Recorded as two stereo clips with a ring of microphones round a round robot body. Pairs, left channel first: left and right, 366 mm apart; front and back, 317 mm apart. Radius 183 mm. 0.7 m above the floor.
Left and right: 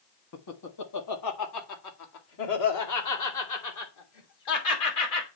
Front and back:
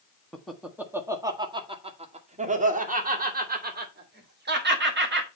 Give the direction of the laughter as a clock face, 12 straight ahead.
9 o'clock.